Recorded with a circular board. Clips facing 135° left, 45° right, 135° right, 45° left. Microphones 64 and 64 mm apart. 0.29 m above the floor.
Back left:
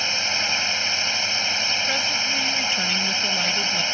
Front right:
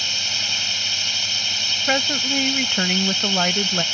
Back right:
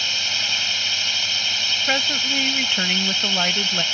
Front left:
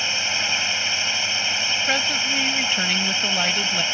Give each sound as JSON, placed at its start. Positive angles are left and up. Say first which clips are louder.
{"t": 0.0, "sound": "a drone", "louder": "back left 3 dB, front left 2 dB", "azimuth_deg": 100}
{"t": 1.9, "sound": "a woman speaking", "louder": "front right 3 dB, back right 2 dB", "azimuth_deg": -55}